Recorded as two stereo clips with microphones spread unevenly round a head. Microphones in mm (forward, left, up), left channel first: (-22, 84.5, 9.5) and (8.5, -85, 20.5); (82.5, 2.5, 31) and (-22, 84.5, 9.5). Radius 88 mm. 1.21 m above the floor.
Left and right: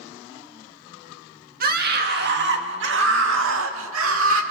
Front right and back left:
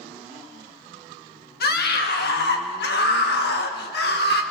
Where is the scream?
35° right, 2 m; by 4.4 s 70° right, 2.5 m.